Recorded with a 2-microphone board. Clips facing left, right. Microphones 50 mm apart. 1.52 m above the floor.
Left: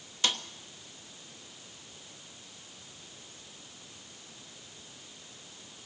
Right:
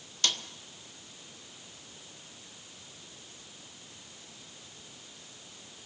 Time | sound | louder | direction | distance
0.2 | a snare drum | left 1 dB | 10° left (ahead or behind) | 1.0 m